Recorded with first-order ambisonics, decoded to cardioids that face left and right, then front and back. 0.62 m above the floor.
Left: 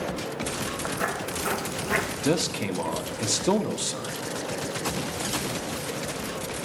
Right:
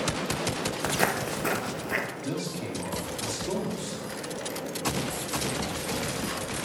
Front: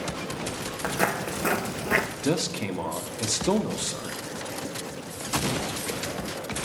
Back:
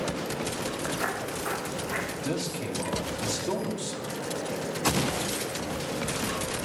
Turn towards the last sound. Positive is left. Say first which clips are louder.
# left 7 dB, front 4 dB
turn(degrees=60)